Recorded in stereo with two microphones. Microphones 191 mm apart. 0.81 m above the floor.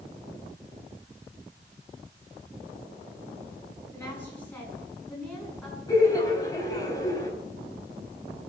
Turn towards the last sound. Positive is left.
turn(degrees=20)  # may be behind; listen again after turning